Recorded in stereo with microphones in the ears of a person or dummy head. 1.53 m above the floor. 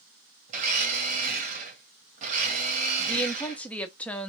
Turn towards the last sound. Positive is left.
turn(degrees=5)  # may be behind; listen again after turning